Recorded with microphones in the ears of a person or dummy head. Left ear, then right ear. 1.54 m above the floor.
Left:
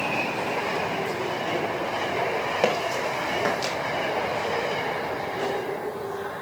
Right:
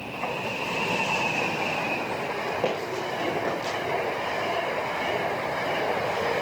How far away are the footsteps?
About 5 m.